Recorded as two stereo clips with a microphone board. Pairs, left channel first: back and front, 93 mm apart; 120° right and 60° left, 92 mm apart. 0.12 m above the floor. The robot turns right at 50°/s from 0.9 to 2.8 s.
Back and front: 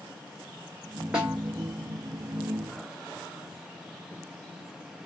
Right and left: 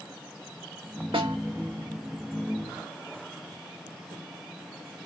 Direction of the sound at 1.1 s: 80° left.